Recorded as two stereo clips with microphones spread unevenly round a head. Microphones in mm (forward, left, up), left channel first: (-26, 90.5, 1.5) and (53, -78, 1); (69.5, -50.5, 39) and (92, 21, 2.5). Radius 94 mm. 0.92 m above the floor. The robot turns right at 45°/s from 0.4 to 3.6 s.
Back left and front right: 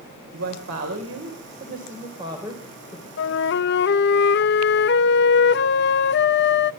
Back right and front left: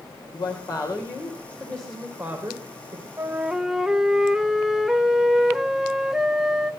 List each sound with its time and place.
0.3 s a woman speaking: 85° right, 3.5 m; by 3.1 s 35° left, 3.5 m
3.2 s a flute: 125° left, 0.6 m; by 6.7 s 145° left, 0.6 m